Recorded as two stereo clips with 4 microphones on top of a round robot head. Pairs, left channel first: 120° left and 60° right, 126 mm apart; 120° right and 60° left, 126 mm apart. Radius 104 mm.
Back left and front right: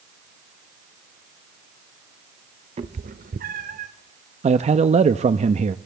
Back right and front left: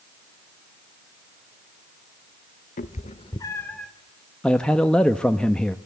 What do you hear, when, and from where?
2.8 s a cat meowing: 100° right, 1.0 m; by 3.9 s 35° right, 1.2 m
4.4 s a man speaking: 40° right, 0.9 m